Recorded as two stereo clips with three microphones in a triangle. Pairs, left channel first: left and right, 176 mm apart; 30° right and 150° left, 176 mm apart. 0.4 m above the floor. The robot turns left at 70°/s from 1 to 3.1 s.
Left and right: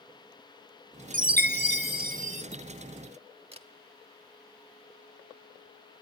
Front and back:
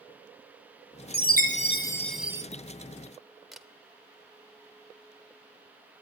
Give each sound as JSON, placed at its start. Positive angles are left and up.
{"t": 1.1, "sound": "a chime", "azimuth_deg": -50, "distance_m": 0.6}
{"t": 3.5, "sound": "a camera shutter", "azimuth_deg": -120, "distance_m": 0.8}